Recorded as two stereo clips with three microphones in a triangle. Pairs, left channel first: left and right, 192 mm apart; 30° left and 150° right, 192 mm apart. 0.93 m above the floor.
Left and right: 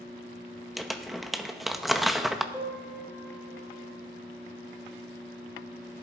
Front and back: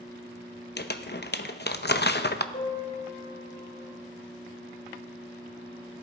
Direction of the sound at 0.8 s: Straight ahead.